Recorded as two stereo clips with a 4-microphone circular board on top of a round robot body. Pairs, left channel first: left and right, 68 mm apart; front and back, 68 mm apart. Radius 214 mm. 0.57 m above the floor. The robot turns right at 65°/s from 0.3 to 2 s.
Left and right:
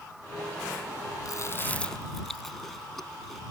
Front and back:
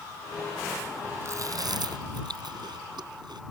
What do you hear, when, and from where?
1.2 s chewing: 130° left; by 3.4 s 175° left